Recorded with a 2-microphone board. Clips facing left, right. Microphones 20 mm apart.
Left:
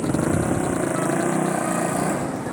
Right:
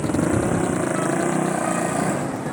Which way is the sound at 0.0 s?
20° right (ahead or behind).